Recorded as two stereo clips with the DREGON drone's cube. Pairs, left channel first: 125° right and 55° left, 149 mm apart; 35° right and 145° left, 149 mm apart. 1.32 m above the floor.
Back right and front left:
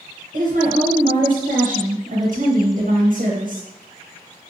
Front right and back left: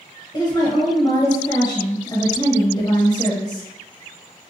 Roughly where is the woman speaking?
Ahead left.